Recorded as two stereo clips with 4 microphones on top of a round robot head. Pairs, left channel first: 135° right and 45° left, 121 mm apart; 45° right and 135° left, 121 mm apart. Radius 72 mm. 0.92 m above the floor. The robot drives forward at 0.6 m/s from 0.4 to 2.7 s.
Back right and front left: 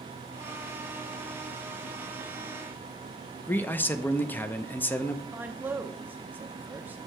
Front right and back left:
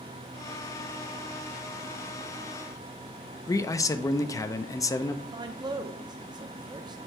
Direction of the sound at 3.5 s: 75° right.